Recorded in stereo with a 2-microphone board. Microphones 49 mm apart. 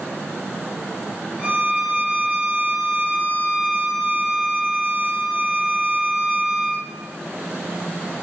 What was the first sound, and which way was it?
A violin, 20° right (ahead or behind).